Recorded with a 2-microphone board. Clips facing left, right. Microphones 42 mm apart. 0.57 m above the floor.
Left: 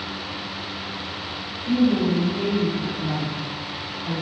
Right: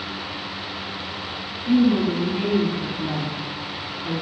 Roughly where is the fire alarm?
I don't hear a fire alarm.